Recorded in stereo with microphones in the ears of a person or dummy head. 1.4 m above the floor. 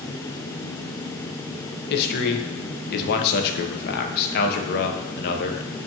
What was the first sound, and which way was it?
A man speaking, 55° left (ahead or behind).